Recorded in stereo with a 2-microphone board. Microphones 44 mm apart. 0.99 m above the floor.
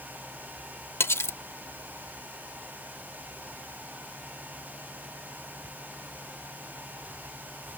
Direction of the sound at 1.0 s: 75° left (ahead or behind).